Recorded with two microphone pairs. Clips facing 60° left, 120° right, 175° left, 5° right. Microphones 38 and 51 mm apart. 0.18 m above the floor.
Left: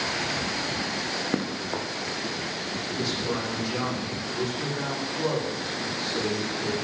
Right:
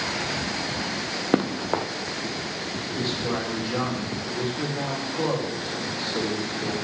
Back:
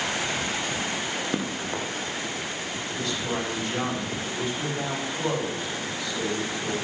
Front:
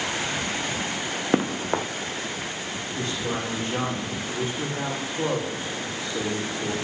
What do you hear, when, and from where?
1.3 s running footsteps: 60° right, 1.0 m
3.0 s a man speaking: 65° right, 7 m